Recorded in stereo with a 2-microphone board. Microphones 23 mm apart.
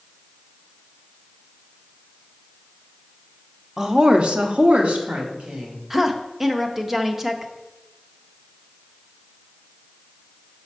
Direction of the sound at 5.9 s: 15° right (ahead or behind).